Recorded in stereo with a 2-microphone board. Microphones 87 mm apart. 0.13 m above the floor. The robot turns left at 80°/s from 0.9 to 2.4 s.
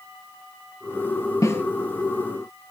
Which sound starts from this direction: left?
A snare drum, at 1.4 s.